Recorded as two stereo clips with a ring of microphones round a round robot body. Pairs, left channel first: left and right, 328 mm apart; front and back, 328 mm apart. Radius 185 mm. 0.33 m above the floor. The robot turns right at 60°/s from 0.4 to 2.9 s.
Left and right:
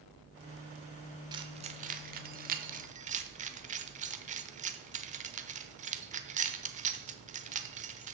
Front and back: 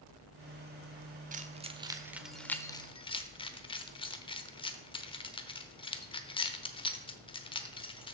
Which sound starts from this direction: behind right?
Keys jangling, at 1.3 s.